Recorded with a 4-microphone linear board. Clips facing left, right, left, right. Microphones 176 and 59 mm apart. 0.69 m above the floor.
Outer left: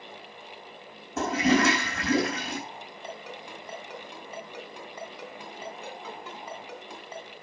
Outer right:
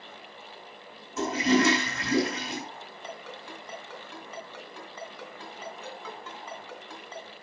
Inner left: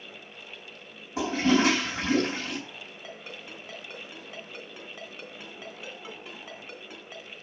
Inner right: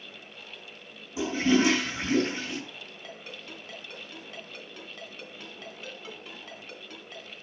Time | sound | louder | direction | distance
1.2 | a toilet flushing | even, inner left 1 dB | 55° left (ahead or behind) | 4 m
3.0 | a ringtone | outer left 1 dB, inner left 1 dB | 15° left (ahead or behind) | 2.5 m